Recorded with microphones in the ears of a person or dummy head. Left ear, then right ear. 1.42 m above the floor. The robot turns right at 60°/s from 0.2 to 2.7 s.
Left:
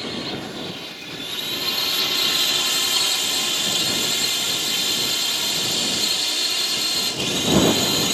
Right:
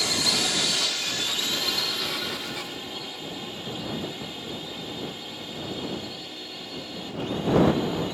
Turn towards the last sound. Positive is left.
turn(degrees=60)